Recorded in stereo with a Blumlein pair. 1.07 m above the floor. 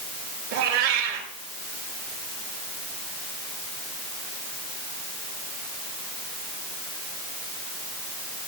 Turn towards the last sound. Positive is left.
turn(degrees=-45)